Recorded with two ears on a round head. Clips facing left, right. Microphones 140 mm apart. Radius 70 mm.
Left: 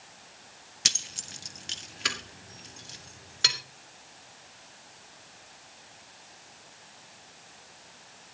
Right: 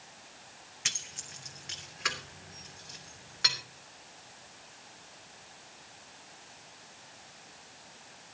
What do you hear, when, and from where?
0.8 s keys jangling: 45° left (ahead or behind), 1.0 m; by 3.6 s 35° left (ahead or behind), 3.5 m